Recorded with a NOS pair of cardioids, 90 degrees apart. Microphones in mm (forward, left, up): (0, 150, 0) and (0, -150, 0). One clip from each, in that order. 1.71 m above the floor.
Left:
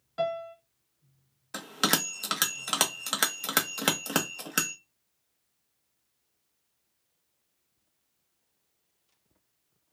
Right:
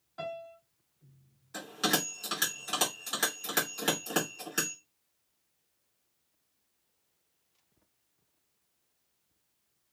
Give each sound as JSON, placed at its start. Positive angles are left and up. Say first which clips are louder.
{"t": 0.2, "sound": "a piano", "louder": "left 9 dB", "azimuth_deg": 40, "distance_m": 1.2}
{"t": 1.5, "sound": "a bell", "louder": "left 3 dB", "azimuth_deg": 55, "distance_m": 1.1}